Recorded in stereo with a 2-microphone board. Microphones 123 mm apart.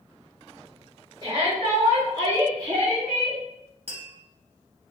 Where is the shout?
40° right (ahead or behind), 1.3 m; by 3.4 s 30° right (ahead or behind), 1.9 m.